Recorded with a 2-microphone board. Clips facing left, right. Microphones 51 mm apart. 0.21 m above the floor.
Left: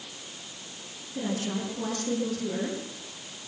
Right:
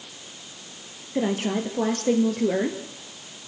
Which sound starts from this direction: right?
A woman speaking, at 1.1 s.